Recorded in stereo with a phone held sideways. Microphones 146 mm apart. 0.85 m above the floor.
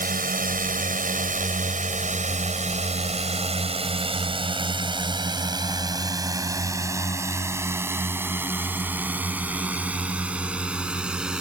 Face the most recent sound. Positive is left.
turn(degrees=-5)  # may be behind; listen again after turning